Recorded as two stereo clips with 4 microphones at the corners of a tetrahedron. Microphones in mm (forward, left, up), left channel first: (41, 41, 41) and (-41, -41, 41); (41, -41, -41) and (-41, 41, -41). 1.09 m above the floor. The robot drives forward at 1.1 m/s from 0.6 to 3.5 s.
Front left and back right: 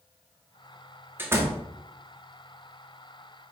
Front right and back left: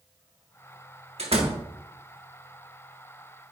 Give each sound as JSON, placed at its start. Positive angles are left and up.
{"t": 1.2, "sound": "a door slam", "azimuth_deg": 155, "distance_m": 1.2}